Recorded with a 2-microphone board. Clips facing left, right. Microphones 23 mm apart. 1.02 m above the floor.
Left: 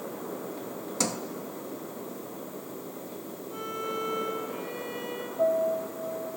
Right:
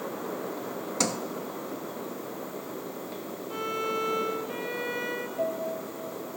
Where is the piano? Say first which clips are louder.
Left 8 dB; 30° right (ahead or behind), 3.5 m.